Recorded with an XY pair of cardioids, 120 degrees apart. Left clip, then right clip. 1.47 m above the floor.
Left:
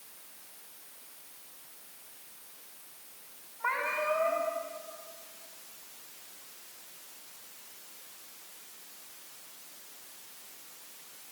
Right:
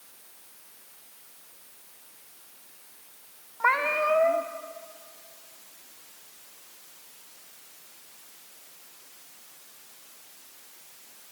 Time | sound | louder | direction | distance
3.6 | a cat meowing | right 7 dB | 60° right | 2 m